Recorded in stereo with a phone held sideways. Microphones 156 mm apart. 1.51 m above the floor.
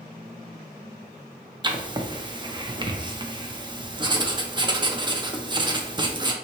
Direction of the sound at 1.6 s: 30° right (ahead or behind).